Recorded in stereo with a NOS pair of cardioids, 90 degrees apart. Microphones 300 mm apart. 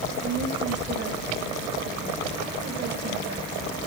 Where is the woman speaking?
35° right, 7.5 m.